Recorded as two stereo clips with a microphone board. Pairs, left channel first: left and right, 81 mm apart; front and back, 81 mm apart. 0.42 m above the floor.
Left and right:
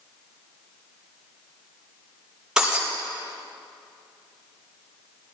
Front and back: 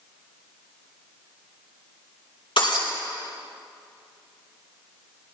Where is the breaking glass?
5° right, 4.5 m.